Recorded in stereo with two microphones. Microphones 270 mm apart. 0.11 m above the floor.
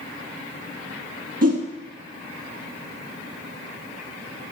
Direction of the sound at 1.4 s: 65° right (ahead or behind).